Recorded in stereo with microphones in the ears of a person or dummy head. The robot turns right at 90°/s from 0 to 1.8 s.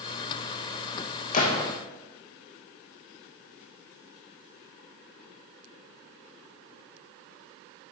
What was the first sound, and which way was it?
A gunshot, 135° left.